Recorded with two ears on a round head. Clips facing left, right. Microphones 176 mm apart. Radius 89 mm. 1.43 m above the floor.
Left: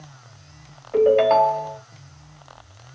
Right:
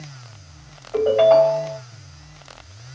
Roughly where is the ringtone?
Left.